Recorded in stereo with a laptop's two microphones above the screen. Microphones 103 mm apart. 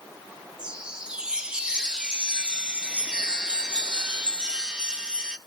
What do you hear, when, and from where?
0.6 s a chime: 10° right (ahead or behind), 0.9 m